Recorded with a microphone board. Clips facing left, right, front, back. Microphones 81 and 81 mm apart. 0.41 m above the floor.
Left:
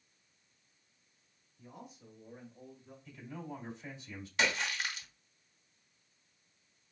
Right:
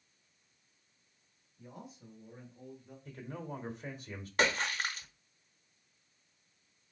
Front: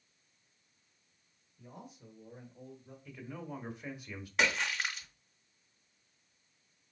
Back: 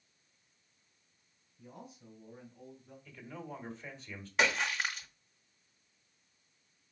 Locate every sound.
1.6 s a man speaking: 20° right, 2 m; by 3.0 s 35° left, 1.9 m
3.0 s a man speaking: 75° right, 1.4 m
4.4 s a splash: 95° right, 1.0 m